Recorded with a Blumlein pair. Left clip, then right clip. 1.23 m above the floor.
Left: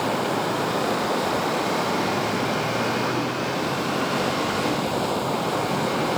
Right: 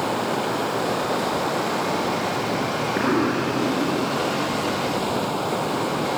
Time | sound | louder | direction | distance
0.0 | running water | even | 5° right | ?
3.0 | an explosion | right 3 dB | 25° right | ?